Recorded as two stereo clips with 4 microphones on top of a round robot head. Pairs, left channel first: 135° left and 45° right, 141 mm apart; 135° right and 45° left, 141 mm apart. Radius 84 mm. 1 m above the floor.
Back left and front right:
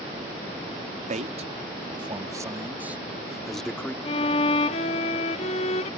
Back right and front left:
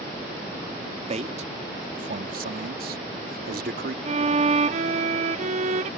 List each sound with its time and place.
1.1 s a man speaking: 5° right; by 4.0 s 55° left
4.0 s a violin: 85° left